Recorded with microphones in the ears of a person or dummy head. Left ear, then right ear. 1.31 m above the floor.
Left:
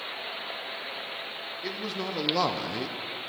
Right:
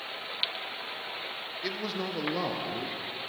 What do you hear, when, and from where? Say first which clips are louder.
1.6 s a man speaking: even; 15° right (ahead or behind), 0.9 m; by 3.0 s 70° left (ahead or behind), 0.7 m